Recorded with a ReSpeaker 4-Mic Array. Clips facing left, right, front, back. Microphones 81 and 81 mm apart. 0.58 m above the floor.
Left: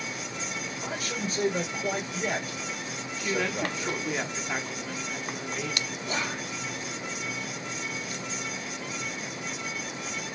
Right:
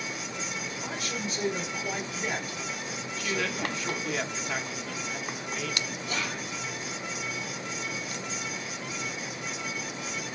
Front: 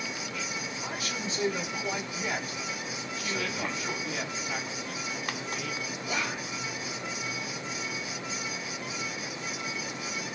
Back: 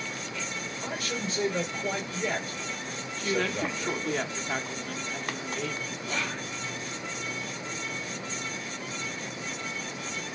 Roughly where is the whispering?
Left.